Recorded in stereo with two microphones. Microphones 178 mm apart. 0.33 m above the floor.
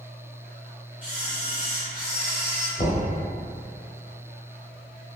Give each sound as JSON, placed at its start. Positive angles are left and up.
{"t": 1.0, "sound": "a camera shutter", "side_deg": -10, "distance_m": 1.3}
{"t": 2.8, "sound": "knocking", "side_deg": 40, "distance_m": 0.9}